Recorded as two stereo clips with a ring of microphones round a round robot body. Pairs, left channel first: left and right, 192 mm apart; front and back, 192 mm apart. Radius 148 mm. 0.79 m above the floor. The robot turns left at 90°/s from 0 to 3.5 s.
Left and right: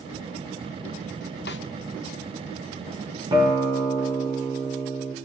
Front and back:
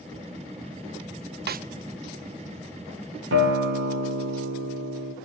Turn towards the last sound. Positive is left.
turn(degrees=180)